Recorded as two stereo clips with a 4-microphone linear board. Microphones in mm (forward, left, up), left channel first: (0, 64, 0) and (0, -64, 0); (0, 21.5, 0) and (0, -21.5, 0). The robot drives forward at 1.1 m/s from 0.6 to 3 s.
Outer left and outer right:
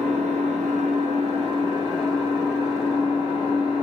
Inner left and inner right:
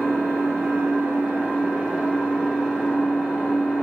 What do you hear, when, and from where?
0.0 s an engine running: 70° right (ahead or behind), 0.9 m; by 3.8 s 20° right (ahead or behind), 2.5 m